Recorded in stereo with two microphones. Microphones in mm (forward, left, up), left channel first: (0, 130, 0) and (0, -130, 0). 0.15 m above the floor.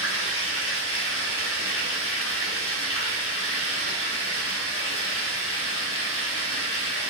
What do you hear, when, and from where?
0.0 s running water: 60° left (ahead or behind), 1.0 m